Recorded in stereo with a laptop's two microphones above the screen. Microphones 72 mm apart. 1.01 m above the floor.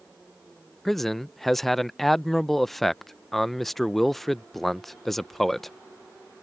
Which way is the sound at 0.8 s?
5° left (ahead or behind).